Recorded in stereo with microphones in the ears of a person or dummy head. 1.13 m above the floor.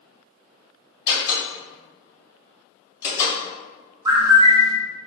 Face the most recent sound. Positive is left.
turn(degrees=-15)  # may be behind; listen again after turning